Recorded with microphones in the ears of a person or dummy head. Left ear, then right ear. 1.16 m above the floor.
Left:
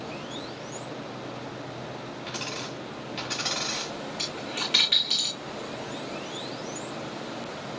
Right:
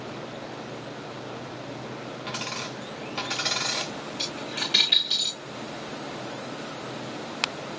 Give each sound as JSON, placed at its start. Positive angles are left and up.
{"t": 2.3, "sound": "a dropped coin", "side_deg": -15, "distance_m": 2.5}
{"t": 4.2, "sound": "a dropped coin", "side_deg": 15, "distance_m": 6.0}